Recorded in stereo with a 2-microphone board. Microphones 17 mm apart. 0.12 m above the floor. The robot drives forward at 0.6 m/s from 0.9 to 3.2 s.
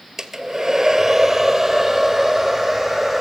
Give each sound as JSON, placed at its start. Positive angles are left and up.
{"t": 0.2, "sound": "a hair dryer", "side_deg": -25, "distance_m": 0.8}